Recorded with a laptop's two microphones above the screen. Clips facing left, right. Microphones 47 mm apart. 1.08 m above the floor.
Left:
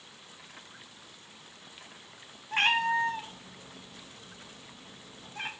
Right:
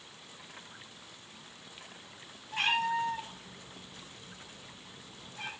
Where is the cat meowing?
50° left (ahead or behind), 0.5 m.